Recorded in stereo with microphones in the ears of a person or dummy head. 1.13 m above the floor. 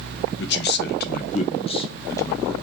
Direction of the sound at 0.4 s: 55° left (ahead or behind).